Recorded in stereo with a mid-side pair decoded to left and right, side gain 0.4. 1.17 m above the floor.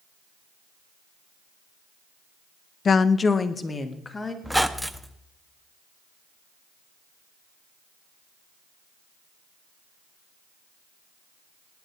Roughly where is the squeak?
Ahead.